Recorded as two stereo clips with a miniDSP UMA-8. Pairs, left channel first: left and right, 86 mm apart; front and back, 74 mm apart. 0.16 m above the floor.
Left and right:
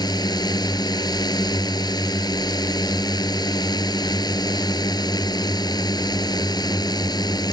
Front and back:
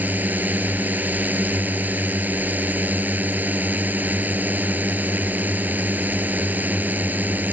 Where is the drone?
120° left.